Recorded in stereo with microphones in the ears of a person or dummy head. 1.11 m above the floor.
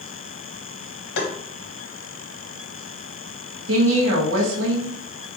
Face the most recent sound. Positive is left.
turn(degrees=-75)  # may be behind; listen again after turning